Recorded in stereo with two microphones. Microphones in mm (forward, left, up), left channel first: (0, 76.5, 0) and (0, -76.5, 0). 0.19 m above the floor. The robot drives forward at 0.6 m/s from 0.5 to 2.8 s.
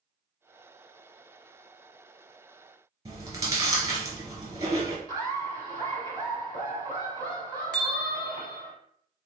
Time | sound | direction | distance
3.0 | chewing | 25° right (ahead or behind) | 1.2 m
5.1 | laughter | 15° left (ahead or behind) | 1.4 m
7.7 | a bell | 5° left (ahead or behind) | 1.0 m